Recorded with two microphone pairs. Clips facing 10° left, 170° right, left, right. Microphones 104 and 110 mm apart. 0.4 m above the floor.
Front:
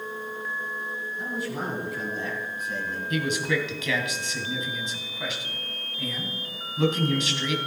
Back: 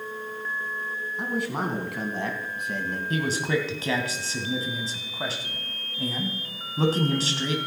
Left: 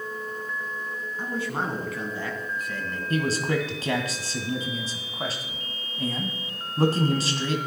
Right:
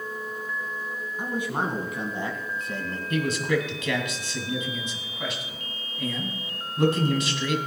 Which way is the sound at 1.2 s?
165° right.